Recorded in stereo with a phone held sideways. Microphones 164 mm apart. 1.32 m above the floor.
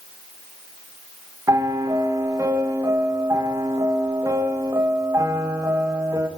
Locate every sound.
1.5 s a piano: 20° right (ahead or behind), 0.8 m